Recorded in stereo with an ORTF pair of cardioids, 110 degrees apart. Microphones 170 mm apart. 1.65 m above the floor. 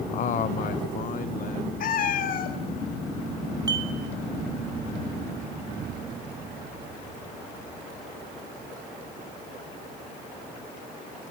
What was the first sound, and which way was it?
A man speaking, 45° left.